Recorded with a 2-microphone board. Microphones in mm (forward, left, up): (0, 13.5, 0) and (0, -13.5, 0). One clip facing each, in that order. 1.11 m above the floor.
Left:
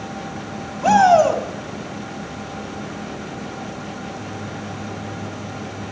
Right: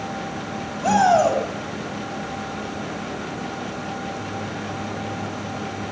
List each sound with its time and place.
0.8 s a shout: 20° left (ahead or behind), 3 m